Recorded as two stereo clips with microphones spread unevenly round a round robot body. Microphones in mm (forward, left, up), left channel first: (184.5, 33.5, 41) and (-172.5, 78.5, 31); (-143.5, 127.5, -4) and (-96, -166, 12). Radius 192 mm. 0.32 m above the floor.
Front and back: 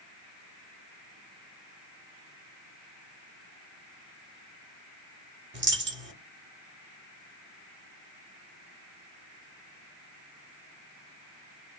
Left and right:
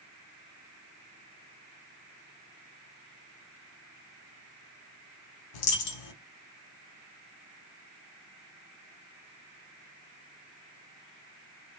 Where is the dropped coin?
110° left, 0.8 m.